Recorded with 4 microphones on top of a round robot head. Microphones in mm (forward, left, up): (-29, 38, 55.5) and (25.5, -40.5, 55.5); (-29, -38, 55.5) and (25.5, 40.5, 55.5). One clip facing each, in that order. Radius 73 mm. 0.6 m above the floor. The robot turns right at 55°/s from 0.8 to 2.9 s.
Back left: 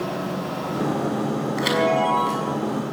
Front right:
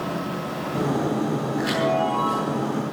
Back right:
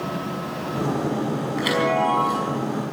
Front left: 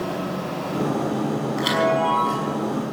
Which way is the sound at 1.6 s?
110° left.